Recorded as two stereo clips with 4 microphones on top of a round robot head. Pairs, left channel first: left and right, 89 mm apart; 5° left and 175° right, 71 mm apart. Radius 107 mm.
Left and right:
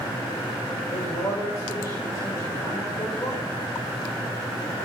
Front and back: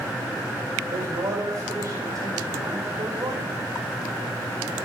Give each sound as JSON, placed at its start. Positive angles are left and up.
{"t": 0.8, "sound": "a man speaking", "azimuth_deg": 145, "distance_m": 4.5}